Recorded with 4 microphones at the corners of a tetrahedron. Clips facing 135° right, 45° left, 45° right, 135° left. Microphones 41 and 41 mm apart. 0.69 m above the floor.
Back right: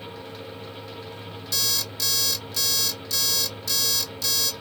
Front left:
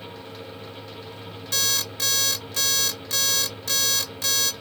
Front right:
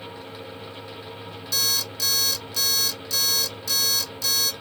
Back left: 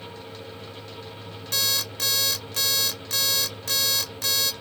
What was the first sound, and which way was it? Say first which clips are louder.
An alarm clock: front left 2 dB, even; 90° left.